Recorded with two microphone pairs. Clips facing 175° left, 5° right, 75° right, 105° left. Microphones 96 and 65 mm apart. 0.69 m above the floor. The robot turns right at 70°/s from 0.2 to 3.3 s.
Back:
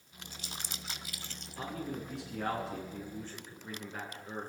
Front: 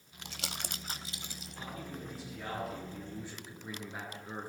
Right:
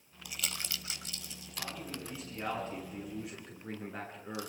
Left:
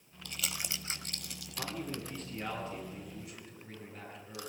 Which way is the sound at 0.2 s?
Straight ahead.